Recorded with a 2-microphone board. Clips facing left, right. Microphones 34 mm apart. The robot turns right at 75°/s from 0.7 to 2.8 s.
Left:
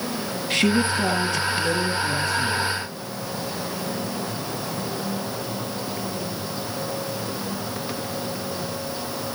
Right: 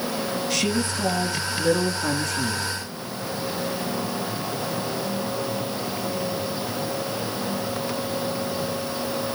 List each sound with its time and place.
0.5 s a woman speaking: 135° left, 4.5 m; by 2.7 s 70° right, 4.5 m